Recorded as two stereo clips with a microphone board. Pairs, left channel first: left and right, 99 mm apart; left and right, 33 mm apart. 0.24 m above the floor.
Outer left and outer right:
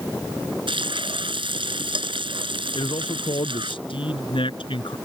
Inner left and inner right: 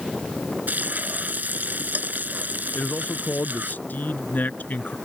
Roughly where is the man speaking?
Left.